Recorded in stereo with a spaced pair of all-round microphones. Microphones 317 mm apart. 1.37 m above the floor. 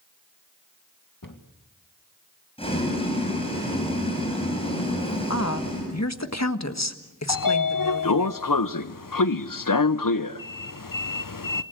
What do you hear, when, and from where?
1.2 s a cupboard door: 80° left, 2 m
2.6 s boiling: 15° left (ahead or behind), 7 m
5.3 s a woman speaking: 55° left (ahead or behind), 1.6 m
7.3 s a sliding door: 85° left, 0.8 m